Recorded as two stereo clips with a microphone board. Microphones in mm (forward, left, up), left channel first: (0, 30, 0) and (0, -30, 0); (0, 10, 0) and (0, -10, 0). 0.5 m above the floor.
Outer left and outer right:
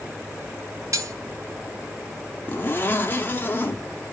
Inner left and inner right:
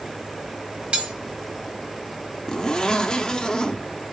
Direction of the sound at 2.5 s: 35° left (ahead or behind).